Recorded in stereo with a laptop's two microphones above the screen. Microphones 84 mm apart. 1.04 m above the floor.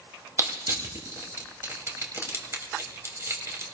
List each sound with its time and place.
0.4 s crushing: 35° right (ahead or behind), 2 m